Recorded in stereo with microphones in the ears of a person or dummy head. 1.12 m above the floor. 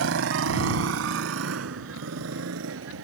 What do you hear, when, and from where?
0.0 s a motorcycle: 75° right (ahead or behind); by 3.0 s 80° right